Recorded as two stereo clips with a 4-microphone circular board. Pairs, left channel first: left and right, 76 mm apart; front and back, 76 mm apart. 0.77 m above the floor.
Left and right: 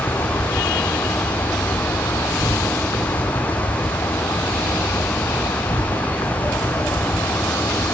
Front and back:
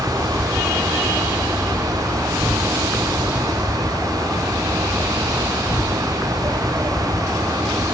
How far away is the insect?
About 0.9 m.